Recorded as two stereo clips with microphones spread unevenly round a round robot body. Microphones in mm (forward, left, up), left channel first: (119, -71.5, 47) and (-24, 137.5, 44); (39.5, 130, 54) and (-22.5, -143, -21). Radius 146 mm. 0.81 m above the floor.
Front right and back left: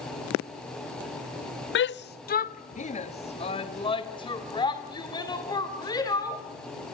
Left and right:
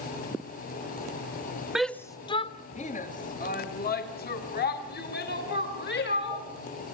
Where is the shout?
30° right, 0.5 m; by 6.4 s 20° left, 3.5 m.